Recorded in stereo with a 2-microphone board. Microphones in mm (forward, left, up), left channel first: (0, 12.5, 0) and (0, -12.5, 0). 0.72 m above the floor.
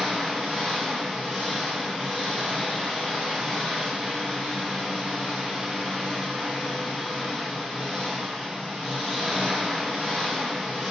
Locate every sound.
0.0 s an engine running: 60° right (ahead or behind), 1.8 m